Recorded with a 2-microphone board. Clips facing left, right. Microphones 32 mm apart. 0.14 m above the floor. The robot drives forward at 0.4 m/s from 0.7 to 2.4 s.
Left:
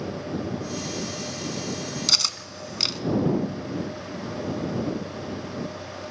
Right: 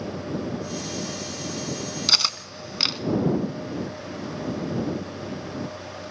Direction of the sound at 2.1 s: 20° right (ahead or behind).